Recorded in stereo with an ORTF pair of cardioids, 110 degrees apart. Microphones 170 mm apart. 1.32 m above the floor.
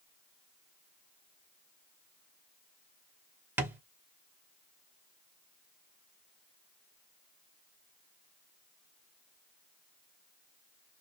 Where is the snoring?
No snoring in this recording.